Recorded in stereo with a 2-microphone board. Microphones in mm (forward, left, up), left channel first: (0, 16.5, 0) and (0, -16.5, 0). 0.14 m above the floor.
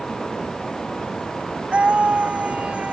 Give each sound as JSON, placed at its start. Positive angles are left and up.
{"t": 1.7, "sound": "a scream", "side_deg": -40}